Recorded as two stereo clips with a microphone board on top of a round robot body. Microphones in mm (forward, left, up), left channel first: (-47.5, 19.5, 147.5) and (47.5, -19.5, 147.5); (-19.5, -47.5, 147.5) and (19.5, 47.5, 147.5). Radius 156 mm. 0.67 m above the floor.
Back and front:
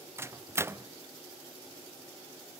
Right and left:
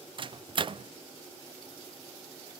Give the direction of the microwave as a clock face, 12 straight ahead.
11 o'clock.